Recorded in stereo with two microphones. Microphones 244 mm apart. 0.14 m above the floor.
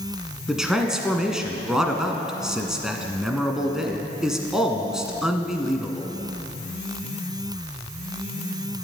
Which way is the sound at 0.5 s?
Centre (ahead or behind).